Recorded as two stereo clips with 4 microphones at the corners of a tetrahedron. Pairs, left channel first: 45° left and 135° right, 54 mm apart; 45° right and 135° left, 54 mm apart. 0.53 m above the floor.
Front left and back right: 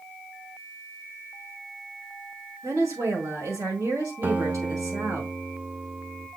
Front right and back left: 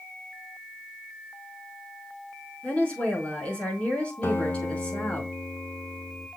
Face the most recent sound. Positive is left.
turn(degrees=-80)